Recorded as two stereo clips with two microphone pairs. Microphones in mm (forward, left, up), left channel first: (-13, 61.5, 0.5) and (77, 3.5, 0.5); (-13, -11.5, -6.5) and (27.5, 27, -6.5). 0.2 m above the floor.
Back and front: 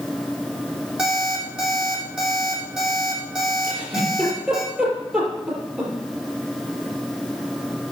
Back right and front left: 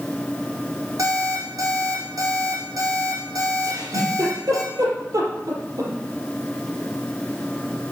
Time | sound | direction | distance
1.0 | an alarm clock | 50° left | 4 m
3.6 | a giggle | 45° left | 4.5 m